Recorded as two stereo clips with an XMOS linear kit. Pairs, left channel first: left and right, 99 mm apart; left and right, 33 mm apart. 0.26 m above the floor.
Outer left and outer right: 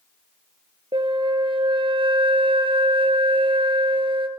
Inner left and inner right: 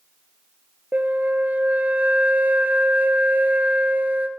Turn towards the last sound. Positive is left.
turn(degrees=-60)  # may be behind; listen again after turning